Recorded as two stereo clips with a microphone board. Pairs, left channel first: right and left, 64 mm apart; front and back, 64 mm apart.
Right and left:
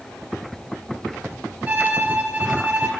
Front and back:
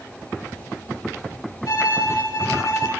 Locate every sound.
1.7 s a violin: 25° left, 3 m